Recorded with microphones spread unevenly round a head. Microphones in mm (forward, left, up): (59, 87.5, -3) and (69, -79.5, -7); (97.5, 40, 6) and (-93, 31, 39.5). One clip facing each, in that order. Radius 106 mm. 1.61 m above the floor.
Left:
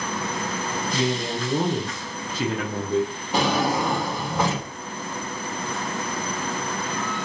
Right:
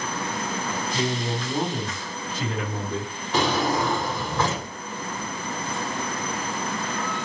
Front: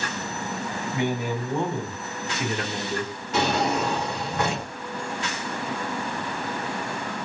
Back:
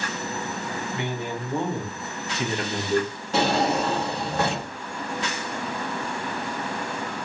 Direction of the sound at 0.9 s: 80° left.